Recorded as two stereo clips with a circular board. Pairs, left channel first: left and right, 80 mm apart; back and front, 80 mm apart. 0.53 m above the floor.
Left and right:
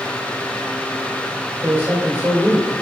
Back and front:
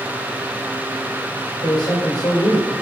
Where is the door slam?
No door slam in this recording.